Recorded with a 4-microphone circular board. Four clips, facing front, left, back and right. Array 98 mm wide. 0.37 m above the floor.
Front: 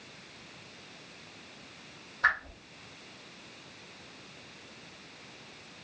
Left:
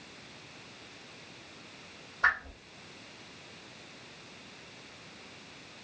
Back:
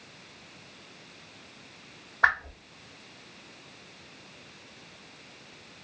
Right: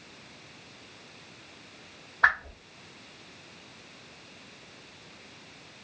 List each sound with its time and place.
2.2 s a whoosh: 145° right, 1.5 m